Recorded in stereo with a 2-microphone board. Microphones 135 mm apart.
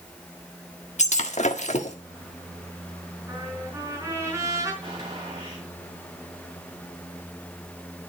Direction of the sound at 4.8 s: 35° right (ahead or behind).